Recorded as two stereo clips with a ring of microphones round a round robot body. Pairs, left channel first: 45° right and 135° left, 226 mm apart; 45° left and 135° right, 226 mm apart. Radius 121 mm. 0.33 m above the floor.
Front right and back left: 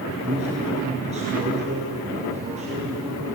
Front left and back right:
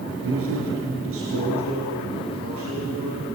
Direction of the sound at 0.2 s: 165° right.